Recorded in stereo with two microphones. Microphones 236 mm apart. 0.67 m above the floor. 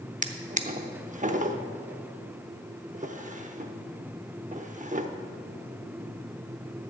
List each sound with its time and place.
0.2 s a drawer: 35° right (ahead or behind), 0.7 m